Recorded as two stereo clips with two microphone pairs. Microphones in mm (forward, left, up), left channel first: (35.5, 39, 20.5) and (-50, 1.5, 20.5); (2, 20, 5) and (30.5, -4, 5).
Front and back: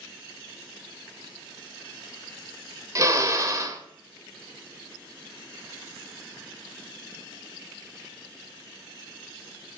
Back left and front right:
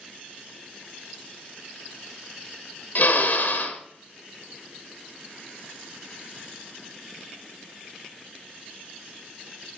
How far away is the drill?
About 1.7 m.